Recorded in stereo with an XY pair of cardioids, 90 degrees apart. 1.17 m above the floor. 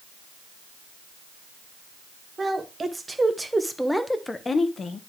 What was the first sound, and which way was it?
A woman speaking, 35° right.